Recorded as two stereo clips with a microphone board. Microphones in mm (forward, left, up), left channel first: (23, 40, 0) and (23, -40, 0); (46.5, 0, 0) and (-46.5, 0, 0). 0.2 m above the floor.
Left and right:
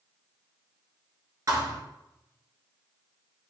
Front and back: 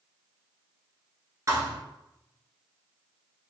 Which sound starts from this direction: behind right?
A thud, at 1.5 s.